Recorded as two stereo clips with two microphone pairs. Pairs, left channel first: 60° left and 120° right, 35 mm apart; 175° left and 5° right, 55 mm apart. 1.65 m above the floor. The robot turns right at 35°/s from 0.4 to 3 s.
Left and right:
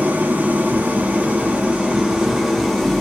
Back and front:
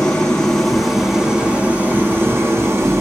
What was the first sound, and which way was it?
An engine running, 115° right.